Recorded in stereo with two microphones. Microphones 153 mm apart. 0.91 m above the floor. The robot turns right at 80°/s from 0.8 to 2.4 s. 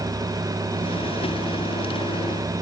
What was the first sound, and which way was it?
Only background noise.